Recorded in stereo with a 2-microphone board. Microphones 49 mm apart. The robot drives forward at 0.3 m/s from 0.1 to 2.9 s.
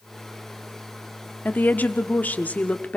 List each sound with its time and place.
1.4 s a woman speaking: 35° left (ahead or behind), 1.2 m; by 3.0 s 30° left (ahead or behind), 1.3 m